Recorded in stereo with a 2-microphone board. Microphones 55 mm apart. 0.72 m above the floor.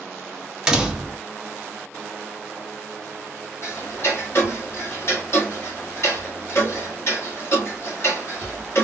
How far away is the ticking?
About 1.3 m.